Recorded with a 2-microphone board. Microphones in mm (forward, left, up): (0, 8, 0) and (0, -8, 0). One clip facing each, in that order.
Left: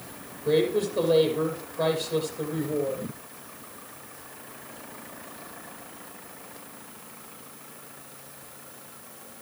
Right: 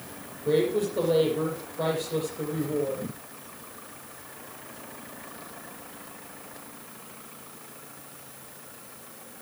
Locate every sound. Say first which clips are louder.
0.5 s a woman speaking: left 1 dB; 10° left (ahead or behind), 5 m